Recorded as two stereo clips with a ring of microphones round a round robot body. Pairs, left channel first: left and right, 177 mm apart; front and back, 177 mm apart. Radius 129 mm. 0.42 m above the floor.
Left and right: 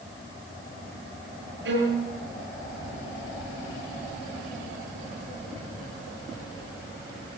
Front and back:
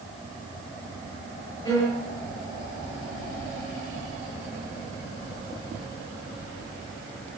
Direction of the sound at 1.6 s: 75° right.